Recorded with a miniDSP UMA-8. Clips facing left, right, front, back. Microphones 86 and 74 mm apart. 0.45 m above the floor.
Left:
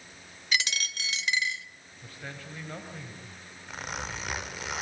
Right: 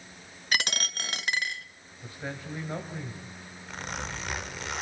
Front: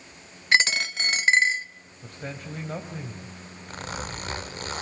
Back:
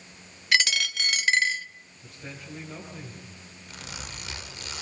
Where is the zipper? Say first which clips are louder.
Even, front 7 dB; 5° left, 1.7 m.